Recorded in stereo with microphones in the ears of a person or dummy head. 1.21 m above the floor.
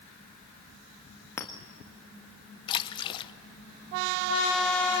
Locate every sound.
1.4 s a clink: 10° left (ahead or behind), 1.5 m
2.7 s a splash: 25° left (ahead or behind), 0.8 m